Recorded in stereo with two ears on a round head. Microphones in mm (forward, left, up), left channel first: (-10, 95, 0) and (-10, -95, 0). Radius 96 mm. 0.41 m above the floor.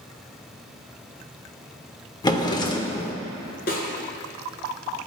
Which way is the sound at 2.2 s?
20° left (ahead or behind).